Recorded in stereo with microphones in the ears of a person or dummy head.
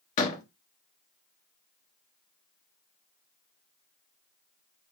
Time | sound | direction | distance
0.2 | a door slam | 40° left (ahead or behind) | 1.3 m